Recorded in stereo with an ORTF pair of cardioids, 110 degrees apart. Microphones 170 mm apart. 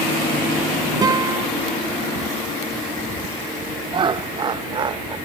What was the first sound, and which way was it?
A guitar, 25° right.